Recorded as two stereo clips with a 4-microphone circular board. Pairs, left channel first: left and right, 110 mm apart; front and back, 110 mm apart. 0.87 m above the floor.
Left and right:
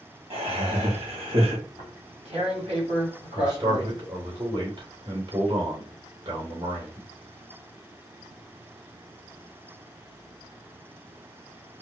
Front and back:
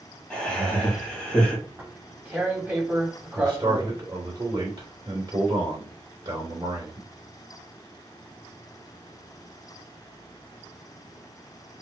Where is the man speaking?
135° right, 3 m.